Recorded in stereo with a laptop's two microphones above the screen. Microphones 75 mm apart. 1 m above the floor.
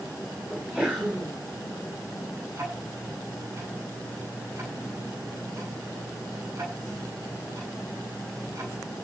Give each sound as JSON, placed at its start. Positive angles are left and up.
{"t": 0.5, "sound": "a sneeze", "side_deg": -15, "distance_m": 5.5}
{"t": 2.5, "sound": "ticking", "side_deg": -40, "distance_m": 9.0}